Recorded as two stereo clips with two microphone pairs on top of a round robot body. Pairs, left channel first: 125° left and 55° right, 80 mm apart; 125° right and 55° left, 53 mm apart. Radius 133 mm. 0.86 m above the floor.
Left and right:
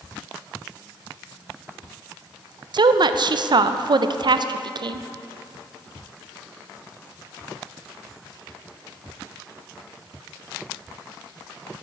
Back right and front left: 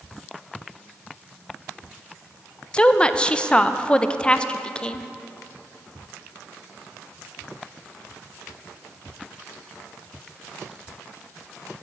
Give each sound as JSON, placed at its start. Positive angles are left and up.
{"t": 2.7, "sound": "a woman speaking", "azimuth_deg": -45, "distance_m": 0.5}